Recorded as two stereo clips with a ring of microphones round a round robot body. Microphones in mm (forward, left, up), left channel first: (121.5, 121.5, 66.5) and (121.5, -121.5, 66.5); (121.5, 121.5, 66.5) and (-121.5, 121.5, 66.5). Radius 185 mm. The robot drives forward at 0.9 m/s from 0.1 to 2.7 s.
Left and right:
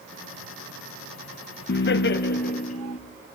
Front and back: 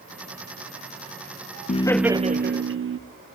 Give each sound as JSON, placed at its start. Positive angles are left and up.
{"t": 1.7, "sound": "laughter", "azimuth_deg": 55, "distance_m": 0.6}